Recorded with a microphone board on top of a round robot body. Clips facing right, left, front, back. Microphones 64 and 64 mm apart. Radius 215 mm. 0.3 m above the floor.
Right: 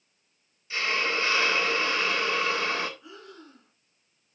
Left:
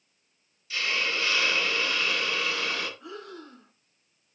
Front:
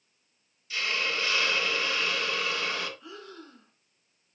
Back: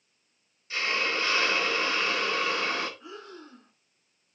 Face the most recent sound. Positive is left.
turn(degrees=110)